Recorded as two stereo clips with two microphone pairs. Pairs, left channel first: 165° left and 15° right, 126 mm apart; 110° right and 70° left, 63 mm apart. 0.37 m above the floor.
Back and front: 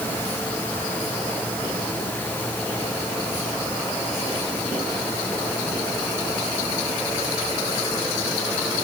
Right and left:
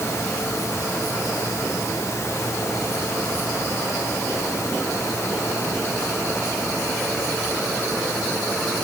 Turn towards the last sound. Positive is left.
No sound to turn to.